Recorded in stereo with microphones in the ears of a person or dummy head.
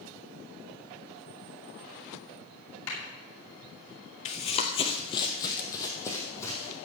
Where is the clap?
80° left, 8.5 m.